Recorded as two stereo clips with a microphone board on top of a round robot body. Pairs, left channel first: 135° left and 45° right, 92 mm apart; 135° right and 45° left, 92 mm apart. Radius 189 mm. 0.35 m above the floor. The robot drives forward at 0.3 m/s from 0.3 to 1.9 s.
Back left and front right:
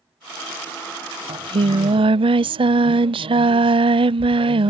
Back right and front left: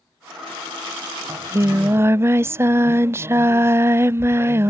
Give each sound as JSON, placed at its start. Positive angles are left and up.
{"t": 1.3, "sound": "singing", "azimuth_deg": -15}